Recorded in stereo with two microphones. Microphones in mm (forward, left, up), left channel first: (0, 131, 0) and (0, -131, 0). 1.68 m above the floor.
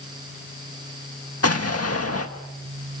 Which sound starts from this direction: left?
An explosion, at 1.4 s.